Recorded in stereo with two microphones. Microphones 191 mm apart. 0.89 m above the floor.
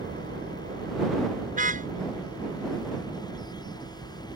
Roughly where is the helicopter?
Right.